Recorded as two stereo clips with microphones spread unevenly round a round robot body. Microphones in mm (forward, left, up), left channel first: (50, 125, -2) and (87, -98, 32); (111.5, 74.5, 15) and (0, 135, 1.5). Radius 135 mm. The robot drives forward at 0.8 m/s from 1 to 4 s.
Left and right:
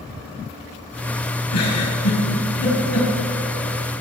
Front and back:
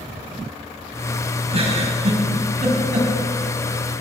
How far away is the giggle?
About 3.5 m.